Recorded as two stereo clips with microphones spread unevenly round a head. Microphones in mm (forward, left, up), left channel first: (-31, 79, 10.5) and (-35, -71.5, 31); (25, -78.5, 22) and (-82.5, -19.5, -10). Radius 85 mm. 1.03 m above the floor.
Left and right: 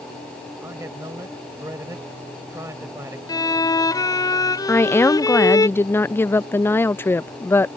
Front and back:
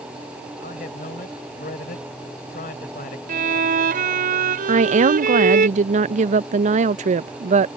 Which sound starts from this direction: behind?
A woman speaking, at 4.7 s.